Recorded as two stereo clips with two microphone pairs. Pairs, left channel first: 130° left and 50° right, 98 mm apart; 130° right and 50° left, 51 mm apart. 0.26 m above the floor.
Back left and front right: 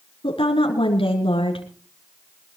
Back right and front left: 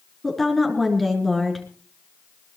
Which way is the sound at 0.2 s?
145° left.